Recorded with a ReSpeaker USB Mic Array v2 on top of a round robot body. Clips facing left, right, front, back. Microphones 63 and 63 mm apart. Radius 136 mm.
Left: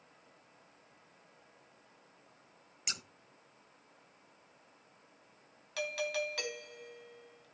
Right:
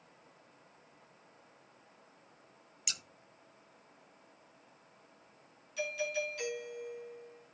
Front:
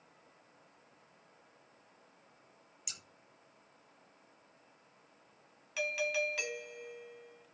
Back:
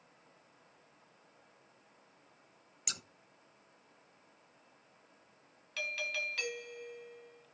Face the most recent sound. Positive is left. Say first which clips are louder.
# even, front 4 dB
turn(degrees=80)